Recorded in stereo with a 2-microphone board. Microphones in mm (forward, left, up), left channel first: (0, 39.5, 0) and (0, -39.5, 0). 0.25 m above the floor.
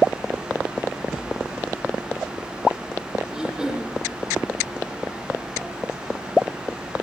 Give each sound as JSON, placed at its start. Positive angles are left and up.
{"t": 3.3, "sound": "throat clearing", "side_deg": -10, "distance_m": 5.5}